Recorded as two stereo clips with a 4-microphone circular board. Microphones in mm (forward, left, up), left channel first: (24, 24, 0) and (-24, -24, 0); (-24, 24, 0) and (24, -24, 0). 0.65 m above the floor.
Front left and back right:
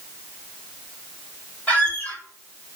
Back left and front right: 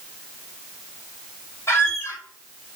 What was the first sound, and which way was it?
A squeak, 105° left.